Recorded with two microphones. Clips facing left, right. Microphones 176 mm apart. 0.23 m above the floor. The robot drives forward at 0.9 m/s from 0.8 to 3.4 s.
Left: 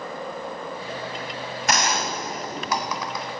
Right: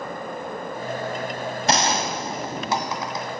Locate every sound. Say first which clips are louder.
1.7 s a gunshot: right 2 dB; 30° right (ahead or behind), 1.5 m; by 3.2 s 25° right (ahead or behind), 1.9 m